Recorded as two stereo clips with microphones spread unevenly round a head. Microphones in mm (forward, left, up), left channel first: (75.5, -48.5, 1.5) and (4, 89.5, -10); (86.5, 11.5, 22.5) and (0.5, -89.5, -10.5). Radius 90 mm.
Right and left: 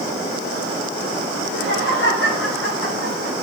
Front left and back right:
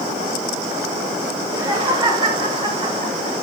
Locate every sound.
1.4 s laughter: 70° right, 7.5 m; by 3.3 s 80° right, 7.5 m